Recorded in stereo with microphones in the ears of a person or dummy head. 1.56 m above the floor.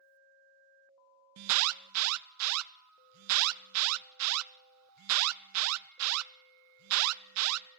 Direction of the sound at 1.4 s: 85° right.